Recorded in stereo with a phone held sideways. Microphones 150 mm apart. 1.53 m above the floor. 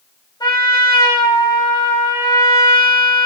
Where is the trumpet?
30° left (ahead or behind), 5 m.